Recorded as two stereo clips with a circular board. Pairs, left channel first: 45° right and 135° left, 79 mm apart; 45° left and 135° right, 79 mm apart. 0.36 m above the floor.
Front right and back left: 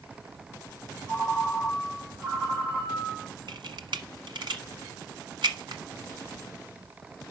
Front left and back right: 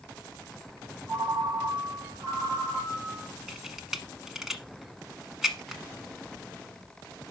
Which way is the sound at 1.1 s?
150° right.